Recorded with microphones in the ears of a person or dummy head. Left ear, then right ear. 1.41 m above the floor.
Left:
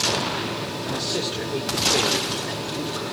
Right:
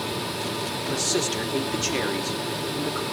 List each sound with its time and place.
0.8 s a man speaking: 50° right (ahead or behind), 2.5 m; by 3.0 s 80° right, 2.5 m